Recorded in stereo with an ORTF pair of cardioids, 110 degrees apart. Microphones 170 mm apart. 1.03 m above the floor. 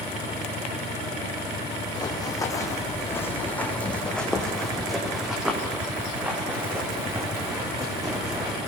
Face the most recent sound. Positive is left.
turn(degrees=-20)